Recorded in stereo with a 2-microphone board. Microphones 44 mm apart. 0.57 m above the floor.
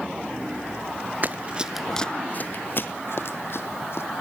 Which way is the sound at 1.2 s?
40° right (ahead or behind).